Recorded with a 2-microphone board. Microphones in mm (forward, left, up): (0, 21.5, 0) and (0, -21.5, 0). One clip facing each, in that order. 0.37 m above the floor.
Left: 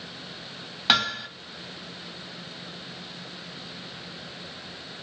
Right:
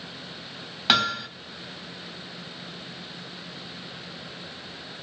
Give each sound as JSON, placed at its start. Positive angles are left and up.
{"t": 0.9, "sound": "hammering", "side_deg": 0, "distance_m": 0.6}